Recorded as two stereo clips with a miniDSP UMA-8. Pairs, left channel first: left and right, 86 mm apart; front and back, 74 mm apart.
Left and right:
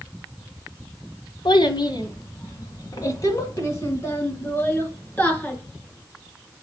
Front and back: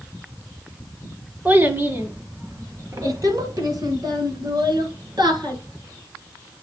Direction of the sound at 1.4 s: 115° left.